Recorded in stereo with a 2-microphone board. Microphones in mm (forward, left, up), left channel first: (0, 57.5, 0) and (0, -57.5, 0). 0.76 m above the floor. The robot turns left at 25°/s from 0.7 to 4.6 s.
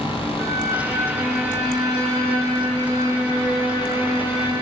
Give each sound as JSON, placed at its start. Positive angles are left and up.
{"t": 0.4, "sound": "a violin", "azimuth_deg": -155, "distance_m": 2.5}